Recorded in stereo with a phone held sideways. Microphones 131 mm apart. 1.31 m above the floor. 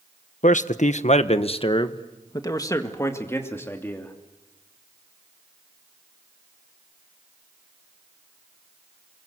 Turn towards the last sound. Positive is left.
turn(degrees=15)  # may be behind; listen again after turning